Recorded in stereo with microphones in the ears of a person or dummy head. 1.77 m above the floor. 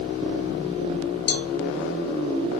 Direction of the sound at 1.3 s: 55° left (ahead or behind).